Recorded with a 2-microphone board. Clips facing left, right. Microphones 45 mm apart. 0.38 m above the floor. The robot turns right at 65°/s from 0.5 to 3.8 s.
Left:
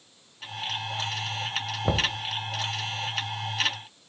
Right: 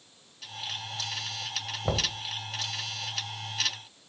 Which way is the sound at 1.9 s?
10° left (ahead or behind).